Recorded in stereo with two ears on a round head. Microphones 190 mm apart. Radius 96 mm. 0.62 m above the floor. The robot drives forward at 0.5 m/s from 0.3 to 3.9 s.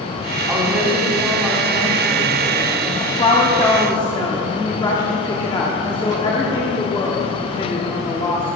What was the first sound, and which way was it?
A woman speaking, 5° right (ahead or behind).